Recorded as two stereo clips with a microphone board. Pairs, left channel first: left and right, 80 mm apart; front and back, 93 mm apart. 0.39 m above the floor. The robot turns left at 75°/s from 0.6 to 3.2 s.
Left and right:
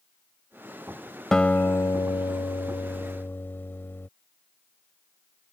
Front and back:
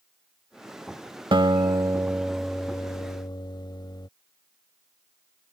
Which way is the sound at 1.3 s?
170° left.